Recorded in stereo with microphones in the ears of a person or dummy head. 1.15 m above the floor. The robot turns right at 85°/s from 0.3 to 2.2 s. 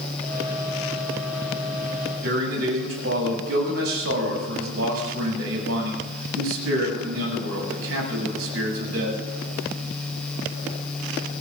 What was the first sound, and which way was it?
A man speaking, 85° right.